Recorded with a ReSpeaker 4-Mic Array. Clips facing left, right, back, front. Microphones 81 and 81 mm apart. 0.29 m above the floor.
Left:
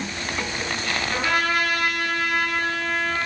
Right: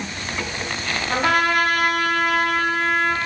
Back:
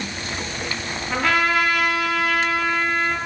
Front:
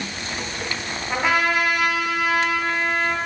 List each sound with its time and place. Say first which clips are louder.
1.1 s a trumpet: right 5 dB, back 1 dB; 70° right, 1.4 m